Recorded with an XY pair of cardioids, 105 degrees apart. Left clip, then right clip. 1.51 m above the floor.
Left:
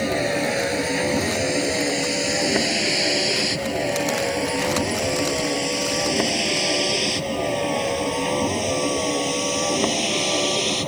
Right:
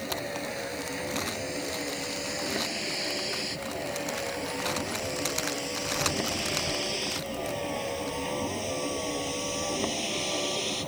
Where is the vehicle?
70° left; by 10.9 s 50° left.